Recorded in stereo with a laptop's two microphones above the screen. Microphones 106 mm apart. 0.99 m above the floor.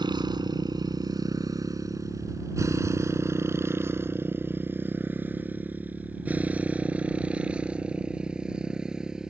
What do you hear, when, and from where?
0.0 s a motorcycle: 45° right (ahead or behind); by 9.3 s 5° right (ahead or behind)